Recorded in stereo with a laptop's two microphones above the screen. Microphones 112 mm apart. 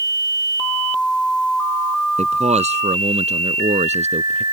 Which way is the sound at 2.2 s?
80° right.